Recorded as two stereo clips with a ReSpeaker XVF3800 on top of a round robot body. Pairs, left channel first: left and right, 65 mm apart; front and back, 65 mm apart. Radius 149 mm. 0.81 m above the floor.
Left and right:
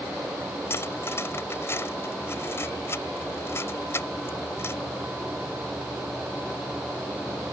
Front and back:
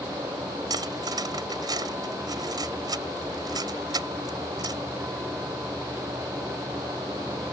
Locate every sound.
0.7 s cutlery clinking: 150° left